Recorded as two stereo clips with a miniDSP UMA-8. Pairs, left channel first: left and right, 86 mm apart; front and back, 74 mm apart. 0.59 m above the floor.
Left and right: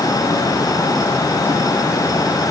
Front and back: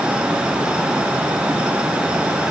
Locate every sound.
Only background noise.